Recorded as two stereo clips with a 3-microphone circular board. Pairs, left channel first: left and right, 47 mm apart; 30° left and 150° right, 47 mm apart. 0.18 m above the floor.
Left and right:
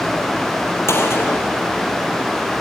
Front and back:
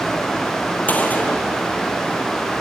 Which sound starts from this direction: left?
A gunshot, at 0.9 s.